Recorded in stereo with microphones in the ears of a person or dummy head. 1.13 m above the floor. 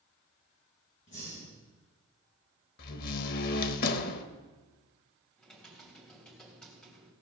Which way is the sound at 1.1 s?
40° left (ahead or behind).